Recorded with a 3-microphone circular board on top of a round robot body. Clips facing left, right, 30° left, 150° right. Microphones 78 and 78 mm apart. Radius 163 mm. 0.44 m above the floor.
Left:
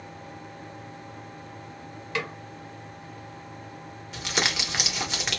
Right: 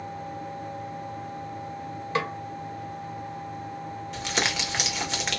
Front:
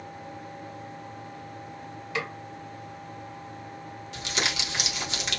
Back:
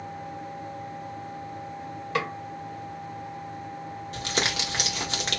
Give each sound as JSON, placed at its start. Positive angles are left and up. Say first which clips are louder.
{"t": 2.1, "sound": "a snare drum", "louder": "right 4 dB, back 4 dB", "azimuth_deg": -140, "distance_m": 2.0}
{"t": 4.1, "sound": "crumpling", "louder": "even, back 2 dB", "azimuth_deg": 180, "distance_m": 2.0}